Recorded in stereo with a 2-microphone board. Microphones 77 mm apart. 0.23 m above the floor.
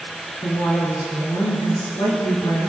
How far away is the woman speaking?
About 2.5 m.